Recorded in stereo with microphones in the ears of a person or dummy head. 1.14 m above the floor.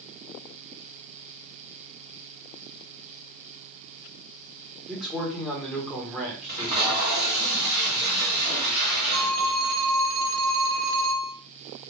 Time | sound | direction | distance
4.9 | a man speaking | 5° left (ahead or behind) | 1.1 m
6.5 | tape being pulled | 20° right (ahead or behind) | 1.5 m
9.1 | a phone ringing | 65° right (ahead or behind) | 1.0 m